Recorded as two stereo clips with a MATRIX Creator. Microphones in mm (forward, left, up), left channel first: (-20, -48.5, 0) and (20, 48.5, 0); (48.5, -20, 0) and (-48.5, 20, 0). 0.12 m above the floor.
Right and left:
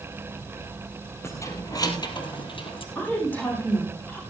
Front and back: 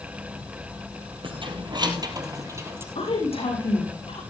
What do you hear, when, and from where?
1.2 s keys jangling: 175° right, 2.5 m; by 2.9 s 135° right, 2.5 m
3.0 s a woman speaking: 40° right, 7 m